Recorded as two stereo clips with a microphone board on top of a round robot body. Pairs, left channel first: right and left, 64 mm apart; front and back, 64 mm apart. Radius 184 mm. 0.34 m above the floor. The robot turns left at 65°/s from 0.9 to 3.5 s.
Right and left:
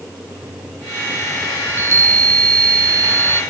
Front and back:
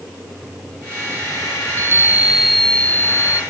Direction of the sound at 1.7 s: 145° left.